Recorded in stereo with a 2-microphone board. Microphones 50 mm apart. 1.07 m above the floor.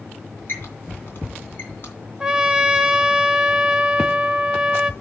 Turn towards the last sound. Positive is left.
turn(degrees=-10)  # may be behind; listen again after turning